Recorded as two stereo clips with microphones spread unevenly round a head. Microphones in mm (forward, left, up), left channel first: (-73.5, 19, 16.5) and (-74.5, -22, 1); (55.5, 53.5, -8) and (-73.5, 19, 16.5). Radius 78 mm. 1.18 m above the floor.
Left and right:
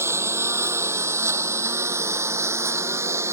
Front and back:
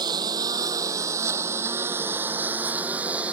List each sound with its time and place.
0.0 s a lawn mower: 100° right; by 3.3 s 85° right